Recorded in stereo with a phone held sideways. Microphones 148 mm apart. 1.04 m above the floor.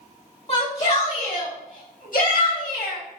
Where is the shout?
40° left (ahead or behind), 2 m; by 3.0 s 80° left, 2 m.